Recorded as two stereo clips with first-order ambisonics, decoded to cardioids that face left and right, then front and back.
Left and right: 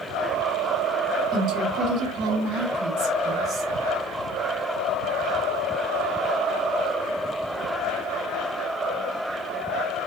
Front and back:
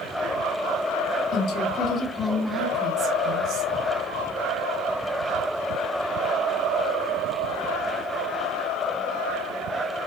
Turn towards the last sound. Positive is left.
turn(degrees=-150)